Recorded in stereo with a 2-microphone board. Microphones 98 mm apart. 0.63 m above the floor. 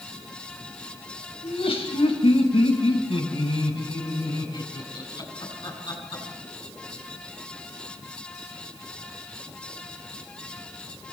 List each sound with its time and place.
1.4 s laughter: 75° left (ahead or behind), 4.5 m; by 6.2 s 40° left (ahead or behind), 8.5 m